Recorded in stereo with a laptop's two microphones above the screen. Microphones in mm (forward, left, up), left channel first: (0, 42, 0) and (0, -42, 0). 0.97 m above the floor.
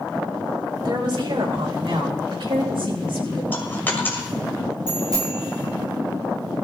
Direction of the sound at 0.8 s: 55° right (ahead or behind).